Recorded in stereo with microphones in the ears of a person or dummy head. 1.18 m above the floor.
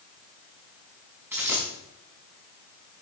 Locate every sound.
1.3 s a dropped coin: 10° right (ahead or behind), 5 m